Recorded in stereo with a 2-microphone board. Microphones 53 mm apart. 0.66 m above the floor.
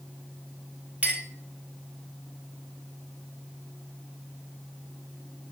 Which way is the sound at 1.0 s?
20° right (ahead or behind).